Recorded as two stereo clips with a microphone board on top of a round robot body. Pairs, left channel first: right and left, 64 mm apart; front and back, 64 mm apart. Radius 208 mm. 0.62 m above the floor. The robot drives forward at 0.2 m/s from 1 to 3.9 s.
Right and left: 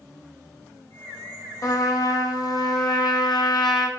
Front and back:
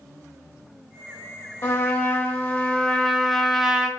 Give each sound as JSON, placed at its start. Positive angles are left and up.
{"t": 1.6, "sound": "a trumpet", "azimuth_deg": -50, "distance_m": 0.6}